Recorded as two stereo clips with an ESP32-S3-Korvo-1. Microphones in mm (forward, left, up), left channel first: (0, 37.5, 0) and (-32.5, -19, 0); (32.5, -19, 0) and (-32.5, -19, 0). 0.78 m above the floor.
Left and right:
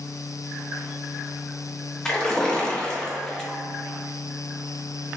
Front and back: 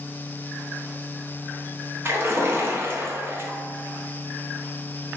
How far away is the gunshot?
I don't hear a gunshot.